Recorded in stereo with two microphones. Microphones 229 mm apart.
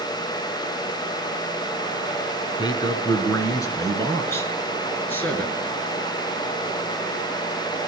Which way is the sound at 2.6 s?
20° left (ahead or behind).